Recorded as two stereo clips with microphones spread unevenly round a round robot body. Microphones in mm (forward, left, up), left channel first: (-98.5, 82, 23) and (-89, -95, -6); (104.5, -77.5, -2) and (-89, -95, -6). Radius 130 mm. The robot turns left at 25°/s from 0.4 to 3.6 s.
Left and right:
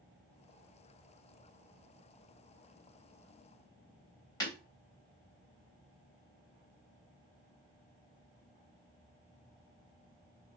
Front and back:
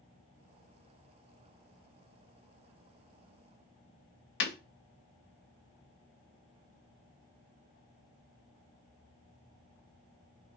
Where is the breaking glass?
25° left, 0.8 m.